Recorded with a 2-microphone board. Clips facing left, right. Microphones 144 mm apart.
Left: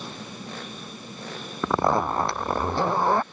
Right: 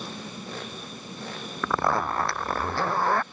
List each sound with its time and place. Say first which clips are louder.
1.6 s a zipper: left 3 dB; 20° left (ahead or behind)